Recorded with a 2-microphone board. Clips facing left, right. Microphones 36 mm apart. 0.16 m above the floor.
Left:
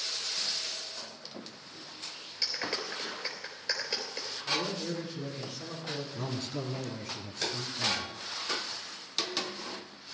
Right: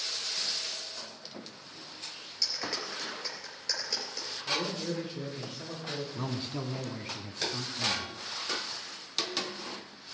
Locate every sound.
2.4 s a clap: 25° left (ahead or behind), 3 m
4.5 s a man speaking: 35° right (ahead or behind), 4.5 m
6.2 s a man speaking: 25° right (ahead or behind), 1.1 m